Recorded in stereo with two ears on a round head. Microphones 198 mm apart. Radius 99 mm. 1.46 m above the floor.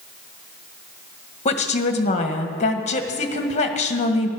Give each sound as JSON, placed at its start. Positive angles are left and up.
{"t": 1.4, "sound": "a woman speaking", "side_deg": 30, "distance_m": 1.7}